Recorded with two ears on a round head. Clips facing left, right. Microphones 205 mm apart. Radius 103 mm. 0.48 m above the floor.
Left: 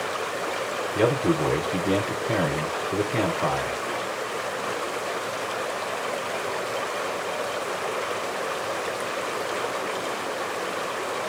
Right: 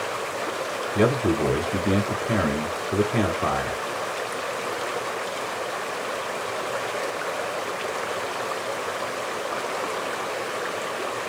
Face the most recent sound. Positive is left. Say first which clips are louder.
# right 1 dB
turn(degrees=-10)  # may be behind; listen again after turning